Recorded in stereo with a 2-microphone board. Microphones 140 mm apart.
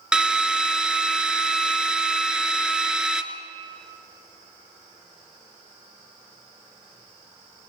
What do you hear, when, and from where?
0.1 s a drill: 5° right (ahead or behind), 1.2 m